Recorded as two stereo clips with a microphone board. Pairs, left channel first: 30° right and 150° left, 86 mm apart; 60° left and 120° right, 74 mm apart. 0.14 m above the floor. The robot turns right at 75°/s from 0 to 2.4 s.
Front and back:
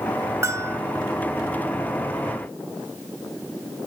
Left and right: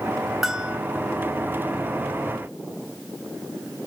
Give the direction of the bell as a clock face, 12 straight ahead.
7 o'clock.